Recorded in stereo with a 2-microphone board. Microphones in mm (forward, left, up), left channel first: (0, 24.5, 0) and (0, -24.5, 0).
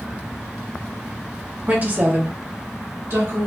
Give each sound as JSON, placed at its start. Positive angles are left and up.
{"t": 1.7, "sound": "a woman speaking", "side_deg": -30, "distance_m": 1.0}